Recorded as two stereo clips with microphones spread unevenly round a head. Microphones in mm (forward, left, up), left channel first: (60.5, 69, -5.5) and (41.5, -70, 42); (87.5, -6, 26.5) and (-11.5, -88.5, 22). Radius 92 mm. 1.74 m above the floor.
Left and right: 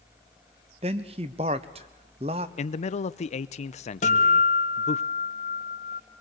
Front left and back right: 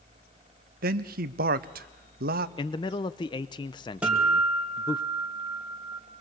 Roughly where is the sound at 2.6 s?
Ahead left.